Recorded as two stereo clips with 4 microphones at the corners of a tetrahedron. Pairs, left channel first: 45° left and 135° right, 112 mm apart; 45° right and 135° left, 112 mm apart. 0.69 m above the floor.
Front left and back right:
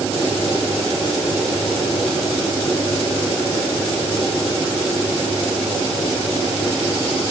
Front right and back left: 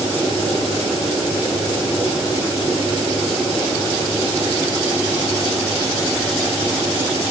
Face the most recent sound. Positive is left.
No sound to turn to.